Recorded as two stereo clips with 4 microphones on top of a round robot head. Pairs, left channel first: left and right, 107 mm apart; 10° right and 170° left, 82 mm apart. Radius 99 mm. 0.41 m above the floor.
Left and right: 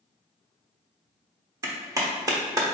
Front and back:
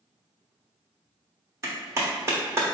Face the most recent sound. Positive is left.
turn(degrees=-145)